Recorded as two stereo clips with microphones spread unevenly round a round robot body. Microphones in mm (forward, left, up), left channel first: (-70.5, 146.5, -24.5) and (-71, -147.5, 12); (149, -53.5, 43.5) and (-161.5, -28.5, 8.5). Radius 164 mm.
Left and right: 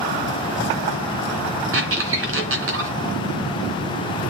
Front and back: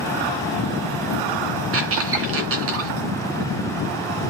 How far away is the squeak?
About 2.5 m.